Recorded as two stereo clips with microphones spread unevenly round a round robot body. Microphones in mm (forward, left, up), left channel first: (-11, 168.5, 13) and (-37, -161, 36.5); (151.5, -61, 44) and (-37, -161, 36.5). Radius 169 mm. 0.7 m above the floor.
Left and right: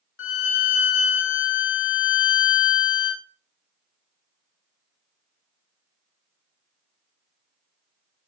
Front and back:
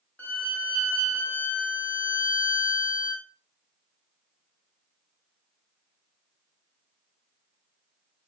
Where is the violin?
110° left, 0.8 m.